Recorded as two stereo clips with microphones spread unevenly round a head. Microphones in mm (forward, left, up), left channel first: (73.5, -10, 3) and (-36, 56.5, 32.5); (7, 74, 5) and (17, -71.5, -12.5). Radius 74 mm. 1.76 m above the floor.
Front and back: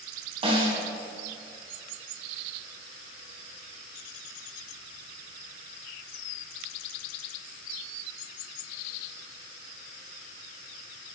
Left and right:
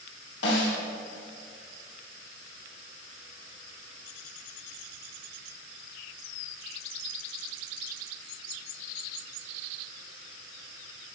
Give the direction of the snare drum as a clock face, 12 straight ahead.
9 o'clock.